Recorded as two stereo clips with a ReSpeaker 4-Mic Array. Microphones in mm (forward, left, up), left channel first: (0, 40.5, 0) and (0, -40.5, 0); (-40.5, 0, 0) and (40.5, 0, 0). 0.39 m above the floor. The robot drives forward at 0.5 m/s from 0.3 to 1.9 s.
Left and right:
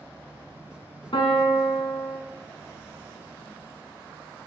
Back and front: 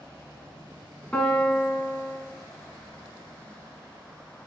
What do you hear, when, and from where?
1.1 s a piano: 105° left, 1.3 m; by 2.2 s 120° left, 1.4 m